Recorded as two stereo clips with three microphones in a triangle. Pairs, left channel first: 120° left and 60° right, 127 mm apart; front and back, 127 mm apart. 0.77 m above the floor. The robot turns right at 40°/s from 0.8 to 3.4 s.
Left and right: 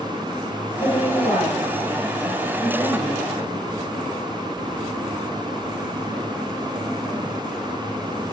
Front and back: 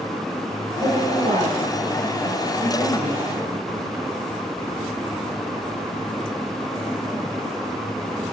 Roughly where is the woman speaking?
Behind left.